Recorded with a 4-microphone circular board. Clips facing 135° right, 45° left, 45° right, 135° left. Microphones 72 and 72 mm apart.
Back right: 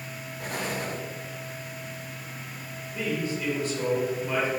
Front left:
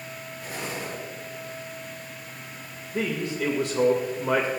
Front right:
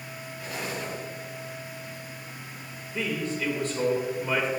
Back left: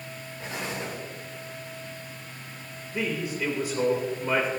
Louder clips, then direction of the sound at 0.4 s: Back right 3 dB, even; 165° right.